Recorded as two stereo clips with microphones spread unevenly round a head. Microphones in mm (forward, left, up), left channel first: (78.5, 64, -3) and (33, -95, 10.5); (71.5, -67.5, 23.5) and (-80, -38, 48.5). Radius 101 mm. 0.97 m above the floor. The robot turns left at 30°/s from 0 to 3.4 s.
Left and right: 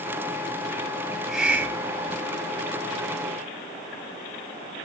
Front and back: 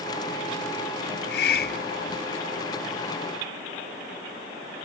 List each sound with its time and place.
1.1 s a hiss: 15° right, 1.3 m; by 2.2 s 50° right, 1.3 m